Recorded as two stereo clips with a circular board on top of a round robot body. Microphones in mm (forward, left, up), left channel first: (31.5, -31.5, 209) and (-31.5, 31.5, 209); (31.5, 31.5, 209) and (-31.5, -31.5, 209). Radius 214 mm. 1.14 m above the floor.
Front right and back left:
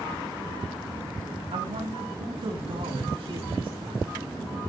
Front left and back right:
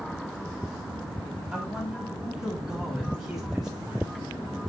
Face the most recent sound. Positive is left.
turn(degrees=145)